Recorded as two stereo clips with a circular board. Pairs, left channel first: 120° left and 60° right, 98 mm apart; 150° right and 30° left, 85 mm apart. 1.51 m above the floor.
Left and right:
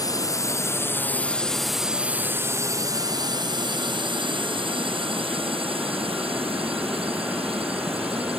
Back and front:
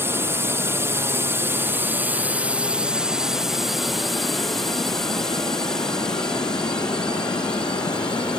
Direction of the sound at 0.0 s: 85° left.